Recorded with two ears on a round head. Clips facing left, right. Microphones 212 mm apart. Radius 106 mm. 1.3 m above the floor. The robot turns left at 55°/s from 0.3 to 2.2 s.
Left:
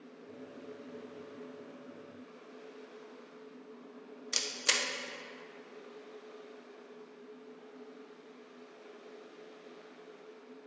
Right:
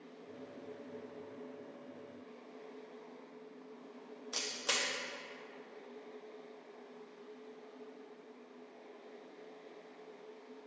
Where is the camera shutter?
30° left (ahead or behind), 0.6 m.